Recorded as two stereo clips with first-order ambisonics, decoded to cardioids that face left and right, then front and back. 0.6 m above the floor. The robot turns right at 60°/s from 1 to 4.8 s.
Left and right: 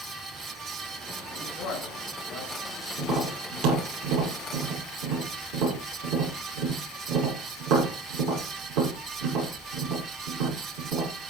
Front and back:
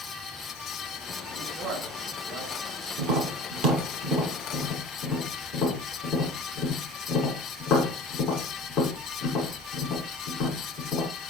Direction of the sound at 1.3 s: 85° left.